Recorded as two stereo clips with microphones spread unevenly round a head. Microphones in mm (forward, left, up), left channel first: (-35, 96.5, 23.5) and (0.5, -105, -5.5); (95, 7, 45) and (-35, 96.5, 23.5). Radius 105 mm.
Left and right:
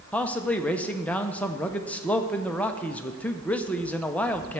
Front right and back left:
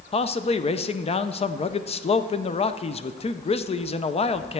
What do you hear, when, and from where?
0.1 s a man speaking: 10° left, 0.7 m